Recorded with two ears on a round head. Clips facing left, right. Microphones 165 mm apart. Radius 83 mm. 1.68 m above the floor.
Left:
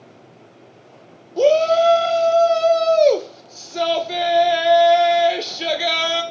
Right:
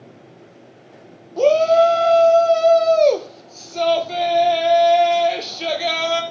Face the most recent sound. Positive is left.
turn(degrees=10)  # may be behind; listen again after turning